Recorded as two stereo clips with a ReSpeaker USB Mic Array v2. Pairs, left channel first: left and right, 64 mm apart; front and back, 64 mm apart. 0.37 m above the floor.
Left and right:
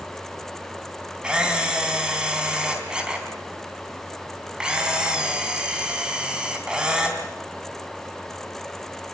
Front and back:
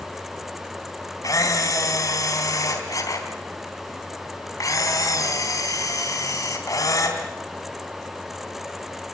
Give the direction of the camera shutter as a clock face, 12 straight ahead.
12 o'clock.